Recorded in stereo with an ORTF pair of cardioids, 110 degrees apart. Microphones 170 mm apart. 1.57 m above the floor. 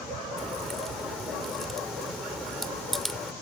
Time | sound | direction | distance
0.4 | a crack | straight ahead | ?